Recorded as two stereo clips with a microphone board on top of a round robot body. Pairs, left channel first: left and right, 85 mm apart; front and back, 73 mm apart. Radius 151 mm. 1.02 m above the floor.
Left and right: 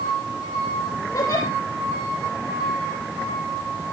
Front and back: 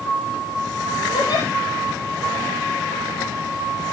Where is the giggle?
40° left, 7.5 m.